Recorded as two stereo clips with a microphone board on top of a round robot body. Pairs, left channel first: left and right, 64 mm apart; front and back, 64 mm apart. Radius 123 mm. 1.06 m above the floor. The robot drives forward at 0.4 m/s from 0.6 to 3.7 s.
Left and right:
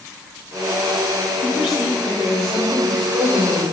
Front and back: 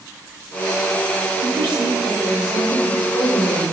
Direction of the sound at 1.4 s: 175° right.